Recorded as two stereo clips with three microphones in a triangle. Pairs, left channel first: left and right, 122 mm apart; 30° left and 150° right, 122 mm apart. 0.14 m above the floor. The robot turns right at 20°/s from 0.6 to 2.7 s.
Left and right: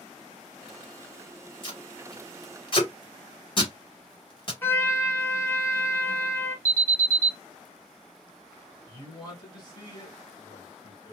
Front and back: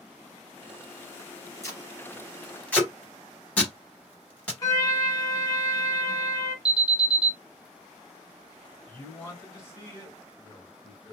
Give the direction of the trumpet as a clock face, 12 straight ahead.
11 o'clock.